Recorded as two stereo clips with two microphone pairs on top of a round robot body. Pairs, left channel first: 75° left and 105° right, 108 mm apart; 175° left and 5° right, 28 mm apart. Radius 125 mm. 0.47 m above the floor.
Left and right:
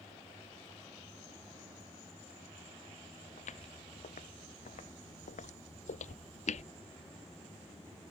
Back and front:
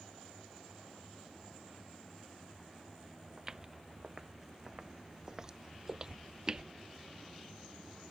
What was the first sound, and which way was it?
Footsteps, 70° left.